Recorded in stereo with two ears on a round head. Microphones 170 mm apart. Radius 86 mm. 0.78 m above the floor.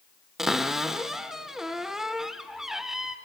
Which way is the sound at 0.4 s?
Centre (ahead or behind).